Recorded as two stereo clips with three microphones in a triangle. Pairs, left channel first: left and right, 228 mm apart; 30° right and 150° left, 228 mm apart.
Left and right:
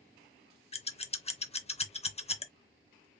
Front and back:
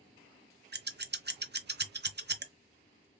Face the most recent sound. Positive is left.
turn(degrees=140)